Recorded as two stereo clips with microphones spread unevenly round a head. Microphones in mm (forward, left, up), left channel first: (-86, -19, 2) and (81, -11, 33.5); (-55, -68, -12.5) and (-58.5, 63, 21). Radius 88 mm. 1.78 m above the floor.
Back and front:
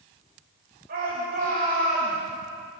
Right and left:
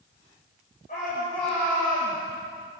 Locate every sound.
0.9 s a shout: 35° right, 9 m